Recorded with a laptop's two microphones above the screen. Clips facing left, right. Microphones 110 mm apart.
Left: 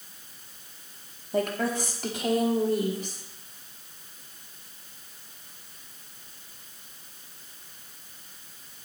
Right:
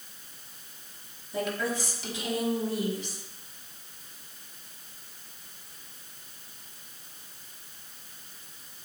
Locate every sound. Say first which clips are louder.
1.3 s a woman speaking: left 4 dB; 55° left (ahead or behind), 2.5 m; by 3.2 s 50° left (ahead or behind), 3.5 m